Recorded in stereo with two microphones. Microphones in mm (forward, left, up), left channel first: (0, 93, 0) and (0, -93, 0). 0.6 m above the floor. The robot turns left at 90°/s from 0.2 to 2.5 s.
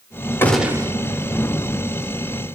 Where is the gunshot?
15° left, 0.9 m; by 0.9 s 35° right, 0.9 m.